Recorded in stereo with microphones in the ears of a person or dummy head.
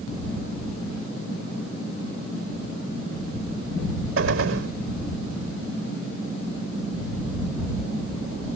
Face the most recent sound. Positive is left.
turn(degrees=-80)